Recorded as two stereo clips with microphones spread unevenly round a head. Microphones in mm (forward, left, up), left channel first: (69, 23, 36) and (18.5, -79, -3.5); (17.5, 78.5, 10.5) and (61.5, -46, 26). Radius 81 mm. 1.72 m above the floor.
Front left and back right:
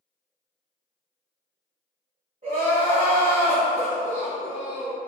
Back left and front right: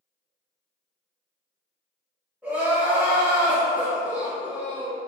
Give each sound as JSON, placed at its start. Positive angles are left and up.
{"t": 2.4, "sound": "crying", "azimuth_deg": -120, "distance_m": 1.6}